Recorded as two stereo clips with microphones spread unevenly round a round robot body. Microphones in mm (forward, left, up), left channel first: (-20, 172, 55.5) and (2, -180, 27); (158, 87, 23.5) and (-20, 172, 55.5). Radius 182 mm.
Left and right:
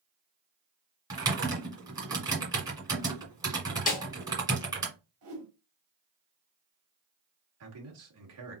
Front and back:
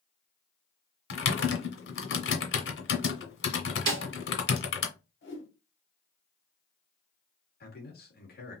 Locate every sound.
1.1 s typing on a keyboard: 5° right, 1.5 m
3.9 s a snare drum: 160° left, 1.4 m
5.2 s a whoosh: 35° right, 2.5 m
7.6 s a man speaking: 45° right, 2 m